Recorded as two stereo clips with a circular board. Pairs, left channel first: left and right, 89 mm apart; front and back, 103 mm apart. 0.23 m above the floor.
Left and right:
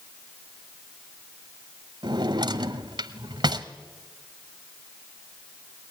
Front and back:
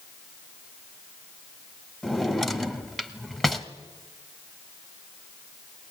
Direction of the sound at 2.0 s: 85° right.